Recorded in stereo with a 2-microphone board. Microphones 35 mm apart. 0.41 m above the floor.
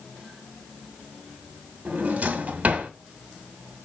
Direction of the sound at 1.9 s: 45° right (ahead or behind).